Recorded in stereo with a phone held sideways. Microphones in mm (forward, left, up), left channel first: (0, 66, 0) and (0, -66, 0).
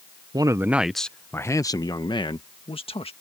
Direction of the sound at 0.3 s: 30° right (ahead or behind).